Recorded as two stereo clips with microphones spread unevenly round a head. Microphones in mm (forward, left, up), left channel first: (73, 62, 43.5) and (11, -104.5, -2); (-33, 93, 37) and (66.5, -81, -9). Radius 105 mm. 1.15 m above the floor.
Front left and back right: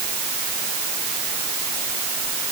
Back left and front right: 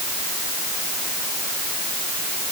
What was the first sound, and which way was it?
Only background noise.